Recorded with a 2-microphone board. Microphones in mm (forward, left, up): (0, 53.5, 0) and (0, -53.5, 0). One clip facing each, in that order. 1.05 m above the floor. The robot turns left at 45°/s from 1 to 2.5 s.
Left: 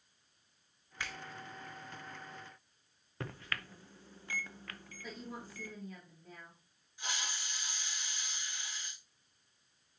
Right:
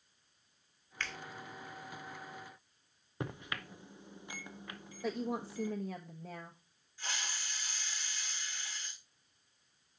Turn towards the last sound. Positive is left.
turn(degrees=20)  # may be behind; listen again after turning